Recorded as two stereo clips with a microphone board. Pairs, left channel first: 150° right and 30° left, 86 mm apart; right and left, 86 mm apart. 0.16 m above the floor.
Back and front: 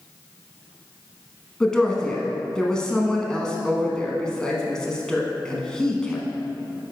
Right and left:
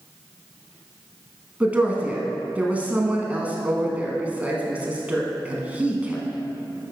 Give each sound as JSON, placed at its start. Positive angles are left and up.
{"t": 1.6, "sound": "a woman speaking", "azimuth_deg": 140, "distance_m": 1.1}